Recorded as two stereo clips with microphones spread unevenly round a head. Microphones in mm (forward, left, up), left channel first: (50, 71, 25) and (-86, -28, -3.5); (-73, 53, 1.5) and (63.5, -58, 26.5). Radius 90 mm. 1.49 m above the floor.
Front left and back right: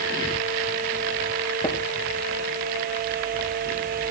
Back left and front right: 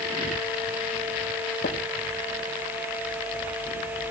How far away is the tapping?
About 4 m.